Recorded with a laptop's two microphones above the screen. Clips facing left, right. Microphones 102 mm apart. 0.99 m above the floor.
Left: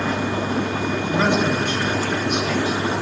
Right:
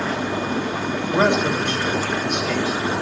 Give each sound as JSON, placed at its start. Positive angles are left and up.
{"t": 1.1, "sound": "a man speaking", "side_deg": -65, "distance_m": 3.5}